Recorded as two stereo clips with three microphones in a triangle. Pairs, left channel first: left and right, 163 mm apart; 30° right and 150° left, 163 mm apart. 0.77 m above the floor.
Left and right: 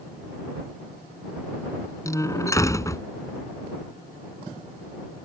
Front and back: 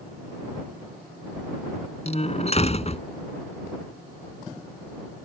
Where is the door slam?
20° left.